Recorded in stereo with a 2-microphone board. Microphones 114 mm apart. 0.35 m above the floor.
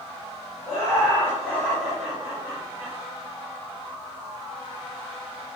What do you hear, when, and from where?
0.7 s laughter: 25° left (ahead or behind), 1.4 m; by 3.0 s 25° right (ahead or behind), 1.2 m